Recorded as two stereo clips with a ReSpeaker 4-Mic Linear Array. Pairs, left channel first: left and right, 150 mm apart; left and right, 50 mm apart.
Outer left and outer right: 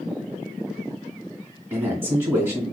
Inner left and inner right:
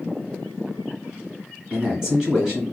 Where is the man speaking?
15° right (ahead or behind), 1.3 m.